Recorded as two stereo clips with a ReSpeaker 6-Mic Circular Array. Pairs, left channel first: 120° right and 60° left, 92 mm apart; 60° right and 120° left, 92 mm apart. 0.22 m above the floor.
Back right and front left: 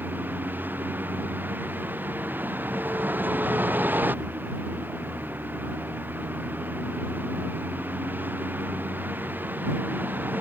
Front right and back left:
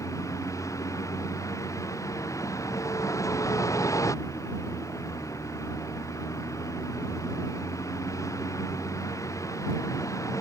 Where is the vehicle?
10° right.